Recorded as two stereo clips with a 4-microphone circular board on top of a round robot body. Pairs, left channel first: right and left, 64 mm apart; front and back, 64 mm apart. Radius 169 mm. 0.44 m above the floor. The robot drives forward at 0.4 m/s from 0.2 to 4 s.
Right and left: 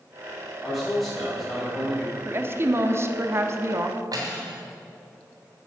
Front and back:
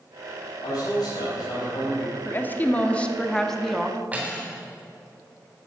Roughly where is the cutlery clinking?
Left.